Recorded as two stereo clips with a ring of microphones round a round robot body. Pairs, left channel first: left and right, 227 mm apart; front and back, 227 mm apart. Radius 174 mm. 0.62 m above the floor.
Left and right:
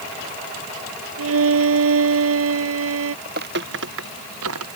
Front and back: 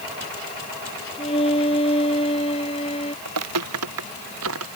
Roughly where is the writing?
I don't hear writing.